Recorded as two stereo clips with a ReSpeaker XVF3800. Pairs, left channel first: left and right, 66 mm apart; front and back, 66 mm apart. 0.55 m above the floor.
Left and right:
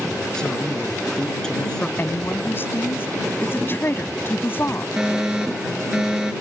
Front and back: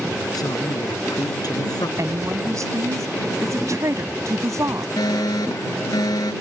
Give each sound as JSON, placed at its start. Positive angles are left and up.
{"t": 0.3, "sound": "a man speaking", "azimuth_deg": 10}
{"t": 2.0, "sound": "a woman speaking", "azimuth_deg": 145}
{"t": 5.0, "sound": "a fire alarm", "azimuth_deg": -10}